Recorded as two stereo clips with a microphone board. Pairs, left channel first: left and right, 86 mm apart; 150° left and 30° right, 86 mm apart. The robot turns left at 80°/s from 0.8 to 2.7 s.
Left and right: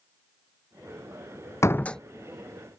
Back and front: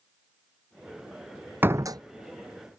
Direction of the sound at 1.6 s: 35° left.